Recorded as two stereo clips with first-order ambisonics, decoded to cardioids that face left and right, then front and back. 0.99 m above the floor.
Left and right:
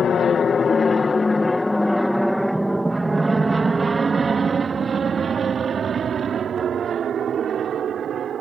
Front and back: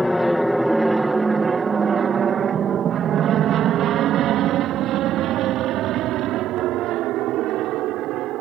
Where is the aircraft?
85° left; by 8.4 s 150° right.